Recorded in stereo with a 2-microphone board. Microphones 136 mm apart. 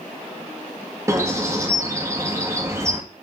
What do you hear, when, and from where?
1.1 s a bird: 20° right (ahead or behind), 1.5 m